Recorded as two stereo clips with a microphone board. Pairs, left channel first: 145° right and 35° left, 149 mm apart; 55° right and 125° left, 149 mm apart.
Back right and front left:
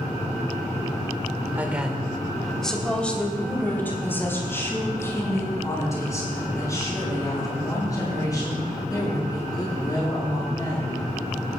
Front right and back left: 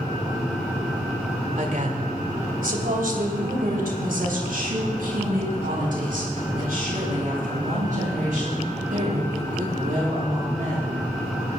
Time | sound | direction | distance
1.6 | a woman speaking | 110° left | 1.8 m